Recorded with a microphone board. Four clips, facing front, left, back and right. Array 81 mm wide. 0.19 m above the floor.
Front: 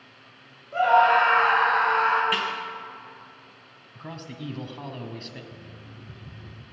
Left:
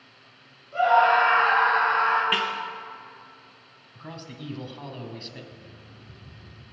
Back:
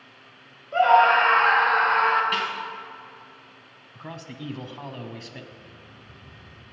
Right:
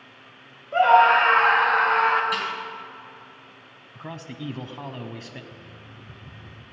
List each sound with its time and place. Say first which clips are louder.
0.7 s a scream: right 3 dB, back 2 dB; 115° right, 4.5 m
2.3 s a snare drum: left 1 dB, back 1 dB; 85° left, 2.5 m
4.0 s a man speaking: right 4 dB, even; 105° right, 1.1 m
5.5 s an alarm clock: right 3 dB, front 2 dB; 25° right, 1.9 m